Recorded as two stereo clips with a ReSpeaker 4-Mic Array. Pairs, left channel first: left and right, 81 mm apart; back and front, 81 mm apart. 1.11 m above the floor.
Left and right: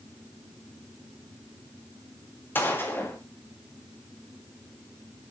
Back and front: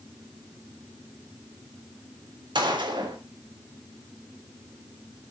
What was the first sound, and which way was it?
A gunshot, 25° left.